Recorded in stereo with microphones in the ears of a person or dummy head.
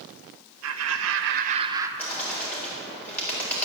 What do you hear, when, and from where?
0.6 s laughter: 75° right (ahead or behind), 1.3 m; by 1.9 s 15° right (ahead or behind), 1.1 m
2.0 s a bird: 10° left (ahead or behind), 4 m